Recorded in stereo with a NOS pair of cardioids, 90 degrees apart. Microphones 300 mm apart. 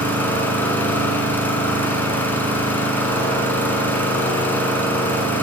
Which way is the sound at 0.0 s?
5° left.